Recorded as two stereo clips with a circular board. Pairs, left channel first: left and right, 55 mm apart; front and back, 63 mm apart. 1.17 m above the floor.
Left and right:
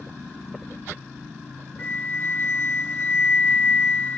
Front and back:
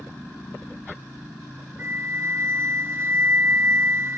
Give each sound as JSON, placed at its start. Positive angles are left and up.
{"t": 1.8, "sound": "a flute", "azimuth_deg": 135, "distance_m": 1.0}